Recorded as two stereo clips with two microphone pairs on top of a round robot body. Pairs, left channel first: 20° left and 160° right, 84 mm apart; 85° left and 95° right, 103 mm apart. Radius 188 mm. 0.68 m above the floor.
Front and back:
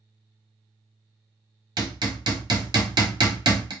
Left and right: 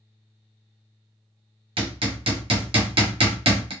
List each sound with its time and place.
1.8 s hammering: 125° right, 1.1 m